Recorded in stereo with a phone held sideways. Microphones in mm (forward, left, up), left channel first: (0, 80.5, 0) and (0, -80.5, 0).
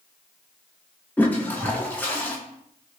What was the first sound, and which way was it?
A toilet flushing, 10° left (ahead or behind).